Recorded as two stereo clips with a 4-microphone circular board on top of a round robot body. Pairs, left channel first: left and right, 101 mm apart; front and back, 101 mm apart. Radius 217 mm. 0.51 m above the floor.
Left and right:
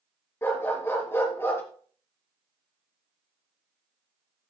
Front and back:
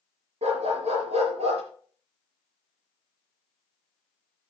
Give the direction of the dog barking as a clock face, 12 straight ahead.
7 o'clock.